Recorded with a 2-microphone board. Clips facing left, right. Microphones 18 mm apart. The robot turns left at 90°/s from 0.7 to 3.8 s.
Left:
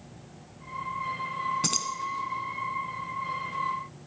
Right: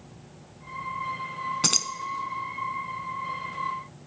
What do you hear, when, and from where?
1.6 s keys jangling: 30° right (ahead or behind), 0.8 m